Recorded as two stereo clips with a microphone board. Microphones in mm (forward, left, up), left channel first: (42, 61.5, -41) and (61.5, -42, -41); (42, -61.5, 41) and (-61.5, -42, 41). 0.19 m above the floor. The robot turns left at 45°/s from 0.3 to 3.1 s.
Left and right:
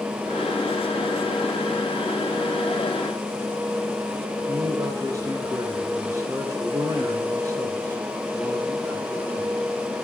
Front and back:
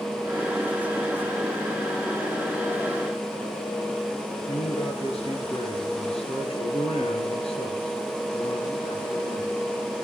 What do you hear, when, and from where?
4.5 s a man speaking: 25° right, 4.5 m